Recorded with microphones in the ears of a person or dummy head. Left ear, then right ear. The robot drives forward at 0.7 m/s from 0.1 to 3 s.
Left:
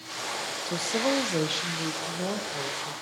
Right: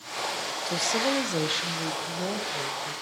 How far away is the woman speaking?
About 0.6 m.